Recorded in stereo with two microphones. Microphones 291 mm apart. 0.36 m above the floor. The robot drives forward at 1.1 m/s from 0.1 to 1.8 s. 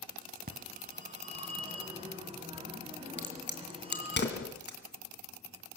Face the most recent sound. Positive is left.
turn(degrees=40)  # may be behind; listen again after turning